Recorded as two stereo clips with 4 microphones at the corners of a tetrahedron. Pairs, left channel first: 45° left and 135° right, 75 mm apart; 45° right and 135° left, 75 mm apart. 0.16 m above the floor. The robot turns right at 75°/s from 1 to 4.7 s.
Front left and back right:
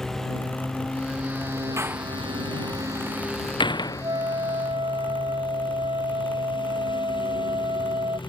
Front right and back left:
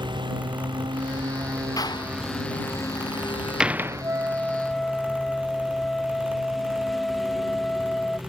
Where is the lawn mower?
130° left; by 8.3 s 45° left.